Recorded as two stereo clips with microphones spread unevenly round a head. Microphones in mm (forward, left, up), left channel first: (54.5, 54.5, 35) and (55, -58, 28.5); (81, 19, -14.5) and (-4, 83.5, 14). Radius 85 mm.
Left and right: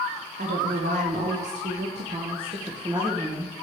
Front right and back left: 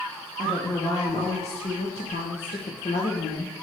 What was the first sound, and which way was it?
A woman speaking, 125° right.